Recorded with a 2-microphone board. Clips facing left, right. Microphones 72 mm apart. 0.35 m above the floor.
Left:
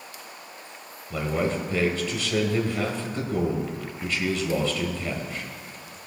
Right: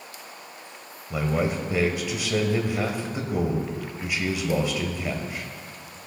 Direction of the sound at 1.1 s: 15° right (ahead or behind).